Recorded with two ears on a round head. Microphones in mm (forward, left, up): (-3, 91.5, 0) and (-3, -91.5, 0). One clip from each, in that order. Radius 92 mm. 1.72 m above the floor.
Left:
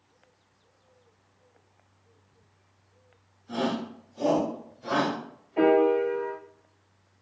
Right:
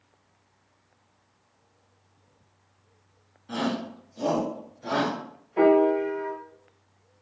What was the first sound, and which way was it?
A shout, 50° right (ahead or behind).